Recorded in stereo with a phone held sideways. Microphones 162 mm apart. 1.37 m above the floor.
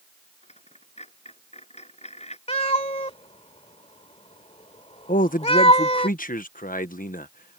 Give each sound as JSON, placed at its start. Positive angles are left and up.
{"t": 0.4, "sound": "a dropped coin", "side_deg": 40}
{"t": 2.5, "sound": "a cat meowing", "side_deg": 40}
{"t": 5.1, "sound": "a man speaking", "side_deg": 55}